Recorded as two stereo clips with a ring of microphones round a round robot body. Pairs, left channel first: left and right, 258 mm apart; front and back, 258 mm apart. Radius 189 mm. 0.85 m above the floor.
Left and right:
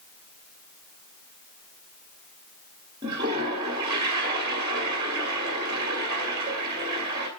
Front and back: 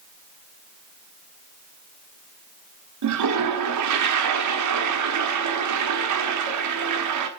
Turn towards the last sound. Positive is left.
turn(degrees=-170)